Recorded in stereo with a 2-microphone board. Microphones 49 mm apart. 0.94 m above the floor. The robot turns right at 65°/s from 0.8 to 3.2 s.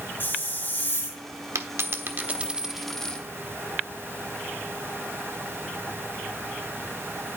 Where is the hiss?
50° left (ahead or behind), 4 m; by 1.2 s 70° left (ahead or behind), 4 m.